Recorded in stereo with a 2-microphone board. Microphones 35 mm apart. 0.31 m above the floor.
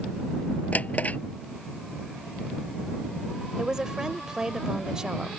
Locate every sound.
0.7 s a drawer: 45° left (ahead or behind)
3.6 s a woman speaking: 20° right (ahead or behind)